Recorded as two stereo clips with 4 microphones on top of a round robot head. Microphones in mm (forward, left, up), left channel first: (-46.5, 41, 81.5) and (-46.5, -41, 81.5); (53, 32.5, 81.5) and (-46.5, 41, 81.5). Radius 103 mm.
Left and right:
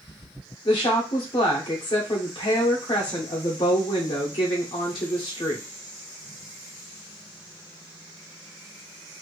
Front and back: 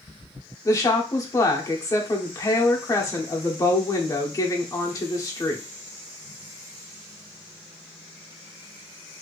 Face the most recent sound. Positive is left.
turn(degrees=50)